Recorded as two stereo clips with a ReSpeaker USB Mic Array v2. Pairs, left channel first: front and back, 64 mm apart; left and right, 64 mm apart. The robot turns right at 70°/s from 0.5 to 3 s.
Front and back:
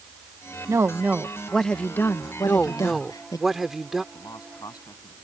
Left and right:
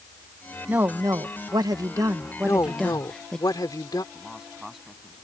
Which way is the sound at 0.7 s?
150° right.